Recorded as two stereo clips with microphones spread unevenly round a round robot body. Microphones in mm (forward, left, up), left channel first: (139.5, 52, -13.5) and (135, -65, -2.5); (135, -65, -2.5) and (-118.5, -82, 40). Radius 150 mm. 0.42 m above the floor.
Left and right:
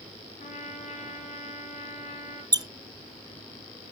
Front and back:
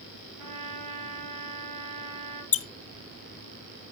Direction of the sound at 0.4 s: 150° left.